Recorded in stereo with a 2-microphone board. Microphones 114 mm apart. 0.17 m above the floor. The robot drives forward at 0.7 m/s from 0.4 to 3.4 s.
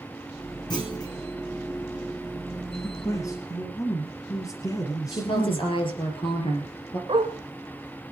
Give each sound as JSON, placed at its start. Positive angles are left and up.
{"t": 0.7, "sound": "a clunk", "side_deg": 35, "distance_m": 5.5}
{"t": 2.7, "sound": "a man speaking", "side_deg": 25, "distance_m": 2.0}
{"t": 5.1, "sound": "a woman speaking", "side_deg": 50, "distance_m": 4.0}
{"t": 7.1, "sound": "a dog barking", "side_deg": -45, "distance_m": 3.0}